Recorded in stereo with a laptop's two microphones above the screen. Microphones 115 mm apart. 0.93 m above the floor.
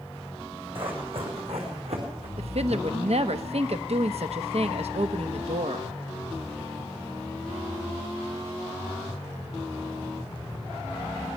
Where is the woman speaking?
65° right (ahead or behind), 0.9 m.